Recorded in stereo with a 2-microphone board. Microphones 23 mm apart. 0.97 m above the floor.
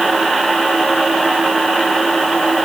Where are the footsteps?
No footsteps in this recording.